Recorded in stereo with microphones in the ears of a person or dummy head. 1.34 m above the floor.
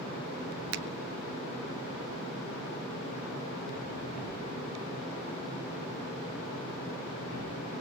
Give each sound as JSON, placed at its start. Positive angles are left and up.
{"t": 0.7, "sound": "a finger snap", "side_deg": -75, "distance_m": 0.8}